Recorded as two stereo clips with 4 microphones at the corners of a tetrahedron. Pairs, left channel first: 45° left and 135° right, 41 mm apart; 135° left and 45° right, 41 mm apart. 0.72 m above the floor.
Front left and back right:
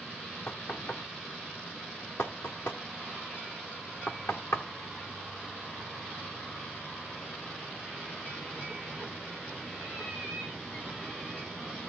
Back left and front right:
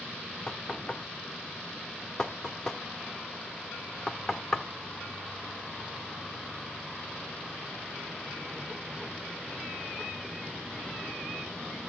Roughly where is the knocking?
Ahead left.